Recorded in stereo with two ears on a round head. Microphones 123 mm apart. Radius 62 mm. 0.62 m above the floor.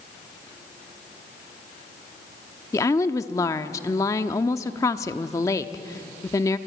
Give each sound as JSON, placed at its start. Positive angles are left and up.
{"t": 2.7, "sound": "a woman speaking", "side_deg": 20, "distance_m": 0.9}